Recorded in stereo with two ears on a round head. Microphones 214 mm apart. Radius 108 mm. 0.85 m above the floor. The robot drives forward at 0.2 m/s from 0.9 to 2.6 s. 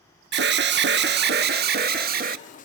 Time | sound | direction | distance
0.3 | an alarm | 50° right (ahead or behind) | 1.2 m